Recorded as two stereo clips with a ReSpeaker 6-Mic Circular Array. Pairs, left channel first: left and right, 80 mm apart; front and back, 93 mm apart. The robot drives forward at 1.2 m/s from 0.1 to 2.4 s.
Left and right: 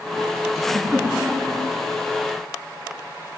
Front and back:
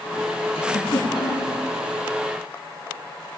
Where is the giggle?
5° right, 5.5 m.